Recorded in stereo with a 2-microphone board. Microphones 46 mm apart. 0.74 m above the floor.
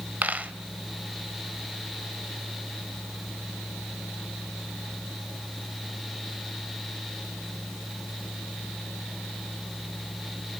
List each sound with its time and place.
0.2 s a dropped coin: 35° right (ahead or behind), 0.7 m